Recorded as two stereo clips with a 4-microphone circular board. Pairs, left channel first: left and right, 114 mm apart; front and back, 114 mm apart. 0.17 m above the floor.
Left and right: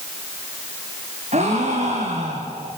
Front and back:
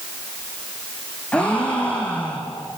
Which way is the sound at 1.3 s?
80° right.